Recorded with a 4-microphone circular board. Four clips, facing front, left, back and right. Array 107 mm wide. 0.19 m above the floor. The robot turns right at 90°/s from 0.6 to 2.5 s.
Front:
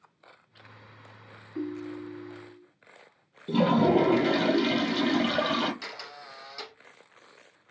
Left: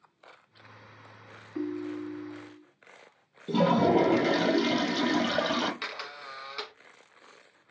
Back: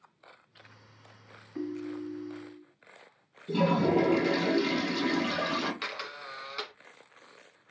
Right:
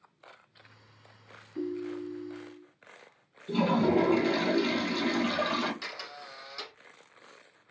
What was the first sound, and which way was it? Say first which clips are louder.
A ringtone: left 1 dB, front 1 dB; 80° left.